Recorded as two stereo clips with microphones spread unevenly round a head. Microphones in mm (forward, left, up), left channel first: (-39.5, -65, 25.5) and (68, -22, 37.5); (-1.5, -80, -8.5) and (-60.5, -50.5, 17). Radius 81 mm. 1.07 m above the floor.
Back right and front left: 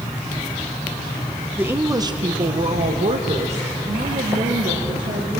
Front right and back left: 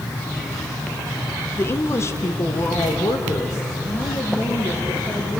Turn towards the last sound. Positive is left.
turn(degrees=25)